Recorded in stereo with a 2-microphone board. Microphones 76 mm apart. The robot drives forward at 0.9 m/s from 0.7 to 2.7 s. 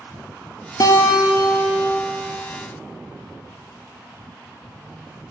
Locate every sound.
0.8 s a guitar: 55° left (ahead or behind), 1.3 m; by 2.0 s 70° left (ahead or behind), 1.1 m